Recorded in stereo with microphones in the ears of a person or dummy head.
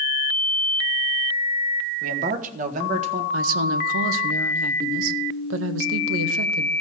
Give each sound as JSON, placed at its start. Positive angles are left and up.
{"t": 2.0, "sound": "a man speaking", "side_deg": -50, "distance_m": 1.2}
{"t": 3.3, "sound": "a woman speaking", "side_deg": -80, "distance_m": 1.0}